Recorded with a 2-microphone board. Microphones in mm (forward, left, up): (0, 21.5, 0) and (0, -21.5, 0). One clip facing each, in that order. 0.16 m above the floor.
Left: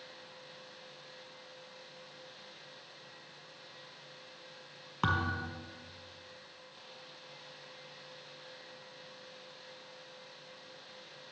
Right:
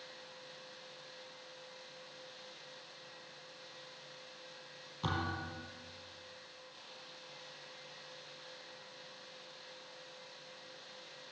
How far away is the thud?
About 2.5 m.